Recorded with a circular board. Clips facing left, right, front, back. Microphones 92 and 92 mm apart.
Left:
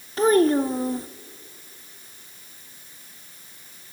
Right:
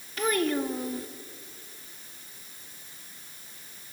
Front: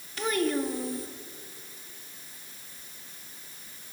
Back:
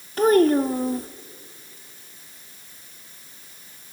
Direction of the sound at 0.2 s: 145° left.